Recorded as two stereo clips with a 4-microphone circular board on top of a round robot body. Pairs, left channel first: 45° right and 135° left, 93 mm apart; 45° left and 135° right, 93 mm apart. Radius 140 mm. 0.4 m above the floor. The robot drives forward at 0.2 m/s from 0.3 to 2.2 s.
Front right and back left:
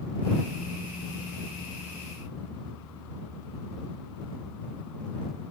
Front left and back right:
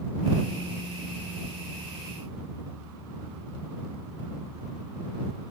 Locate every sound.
Only background noise.